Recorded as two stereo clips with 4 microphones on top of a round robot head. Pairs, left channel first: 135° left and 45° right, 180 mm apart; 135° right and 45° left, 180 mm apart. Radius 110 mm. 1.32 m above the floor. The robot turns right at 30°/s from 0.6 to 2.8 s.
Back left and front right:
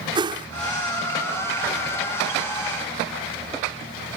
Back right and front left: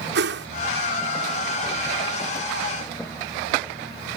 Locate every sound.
0.1 s a whoosh: 20° left